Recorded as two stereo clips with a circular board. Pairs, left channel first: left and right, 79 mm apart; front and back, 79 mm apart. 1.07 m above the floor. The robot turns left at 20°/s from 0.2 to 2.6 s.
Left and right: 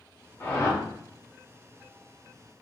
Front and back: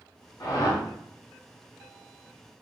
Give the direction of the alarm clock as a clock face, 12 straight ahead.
No alarm clock in this recording.